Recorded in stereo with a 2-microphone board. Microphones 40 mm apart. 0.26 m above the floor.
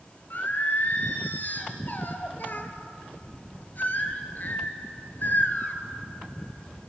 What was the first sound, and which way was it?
Singing, 50° left (ahead or behind).